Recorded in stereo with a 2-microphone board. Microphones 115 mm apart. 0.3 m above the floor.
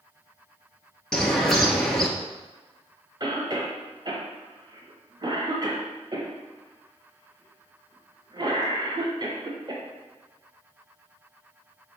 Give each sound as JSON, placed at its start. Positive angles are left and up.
{"t": 1.1, "sound": "a bird", "side_deg": 5, "distance_m": 1.0}
{"t": 3.2, "sound": "a cough", "side_deg": -40, "distance_m": 1.2}